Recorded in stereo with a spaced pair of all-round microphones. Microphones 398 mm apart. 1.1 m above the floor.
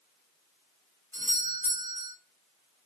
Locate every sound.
1.1 s a doorbell: 20° right (ahead or behind), 3.5 m